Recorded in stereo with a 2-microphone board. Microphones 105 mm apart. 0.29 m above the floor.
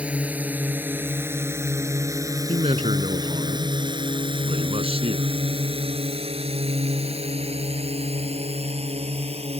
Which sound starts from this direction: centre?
A drone, at 0.0 s.